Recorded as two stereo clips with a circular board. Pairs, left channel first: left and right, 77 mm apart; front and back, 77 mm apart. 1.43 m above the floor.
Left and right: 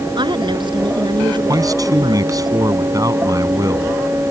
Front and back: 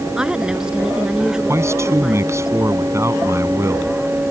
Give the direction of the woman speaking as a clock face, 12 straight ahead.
3 o'clock.